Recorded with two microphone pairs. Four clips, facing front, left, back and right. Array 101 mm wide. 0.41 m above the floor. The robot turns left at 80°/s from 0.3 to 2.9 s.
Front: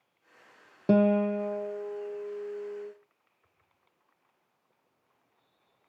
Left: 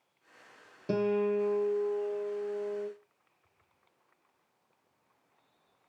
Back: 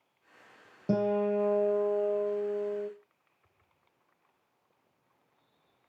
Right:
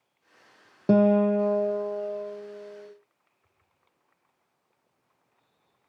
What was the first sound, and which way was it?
A guitar, 60° right.